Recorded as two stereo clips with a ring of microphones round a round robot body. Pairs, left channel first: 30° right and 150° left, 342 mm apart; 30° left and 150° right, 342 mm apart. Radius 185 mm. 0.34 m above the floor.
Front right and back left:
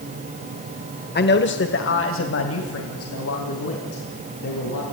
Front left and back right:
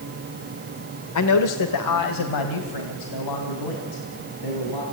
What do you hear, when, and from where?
1.1 s a man speaking: 25° left, 1.3 m; by 4.8 s 15° left, 4 m